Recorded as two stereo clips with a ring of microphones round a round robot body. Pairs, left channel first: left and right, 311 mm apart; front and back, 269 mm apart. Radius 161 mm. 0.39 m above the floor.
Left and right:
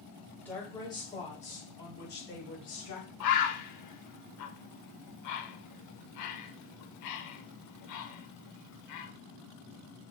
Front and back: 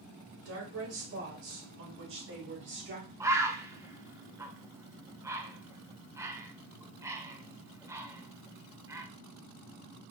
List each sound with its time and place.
0.4 s a woman speaking: 175° left, 2 m; by 3.1 s 130° left, 3 m
3.2 s a bird: 100° left, 0.8 m